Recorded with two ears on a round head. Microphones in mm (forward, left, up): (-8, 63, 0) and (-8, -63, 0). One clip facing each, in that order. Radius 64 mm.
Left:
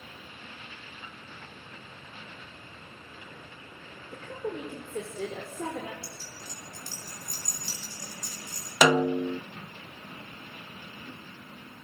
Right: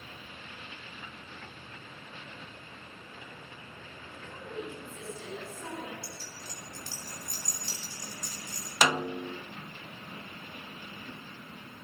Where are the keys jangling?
80° left, 7 m.